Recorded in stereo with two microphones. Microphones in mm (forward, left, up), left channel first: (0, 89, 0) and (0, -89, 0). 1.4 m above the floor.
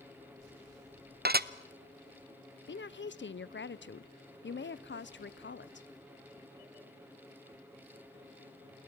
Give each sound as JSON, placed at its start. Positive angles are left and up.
{"t": 1.2, "sound": "dishes clattering", "side_deg": -55, "distance_m": 0.7}
{"t": 2.7, "sound": "a woman speaking", "side_deg": 75, "distance_m": 0.5}